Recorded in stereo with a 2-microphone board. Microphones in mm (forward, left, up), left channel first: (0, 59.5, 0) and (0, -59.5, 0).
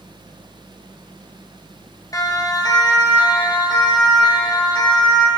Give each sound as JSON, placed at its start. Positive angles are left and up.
{"t": 2.1, "sound": "a siren", "side_deg": 30, "distance_m": 2.5}